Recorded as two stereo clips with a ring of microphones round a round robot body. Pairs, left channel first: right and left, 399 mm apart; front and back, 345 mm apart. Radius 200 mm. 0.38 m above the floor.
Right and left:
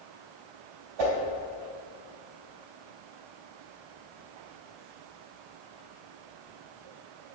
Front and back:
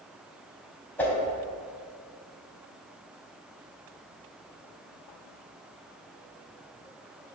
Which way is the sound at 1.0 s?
85° left.